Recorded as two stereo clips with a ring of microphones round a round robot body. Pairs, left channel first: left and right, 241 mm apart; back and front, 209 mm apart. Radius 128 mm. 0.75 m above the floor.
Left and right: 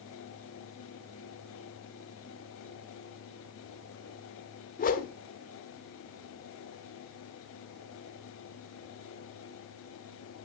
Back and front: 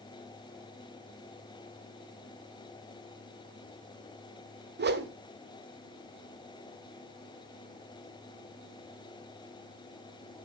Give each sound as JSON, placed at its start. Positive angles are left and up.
{"t": 4.8, "sound": "a whoosh", "azimuth_deg": 35, "distance_m": 1.6}